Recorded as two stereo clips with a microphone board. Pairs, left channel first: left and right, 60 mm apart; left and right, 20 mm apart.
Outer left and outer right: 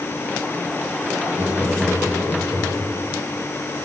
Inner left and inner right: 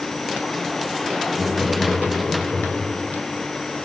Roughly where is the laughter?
Right.